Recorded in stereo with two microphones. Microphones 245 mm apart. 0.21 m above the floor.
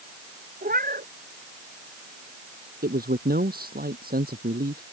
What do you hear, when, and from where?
0.6 s a cat meowing: 35° right (ahead or behind)
2.8 s a man speaking: 40° right (ahead or behind)